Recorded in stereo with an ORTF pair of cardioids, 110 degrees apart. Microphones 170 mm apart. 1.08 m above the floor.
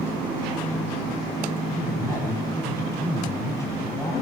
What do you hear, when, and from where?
1.7 s a man speaking: 20° left, 9 m